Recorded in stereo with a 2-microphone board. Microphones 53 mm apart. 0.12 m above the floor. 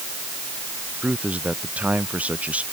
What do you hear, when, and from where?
1.0 s a man speaking: 25° right (ahead or behind)